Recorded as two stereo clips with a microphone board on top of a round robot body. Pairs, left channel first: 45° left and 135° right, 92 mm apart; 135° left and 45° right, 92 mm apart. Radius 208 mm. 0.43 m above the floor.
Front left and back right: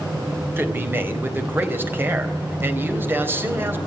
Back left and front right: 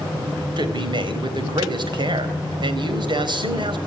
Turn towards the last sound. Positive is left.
turn(degrees=-70)